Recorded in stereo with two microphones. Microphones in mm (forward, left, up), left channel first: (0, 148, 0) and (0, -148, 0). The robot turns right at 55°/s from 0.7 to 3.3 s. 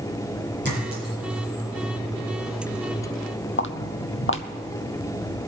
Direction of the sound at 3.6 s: 40° left (ahead or behind).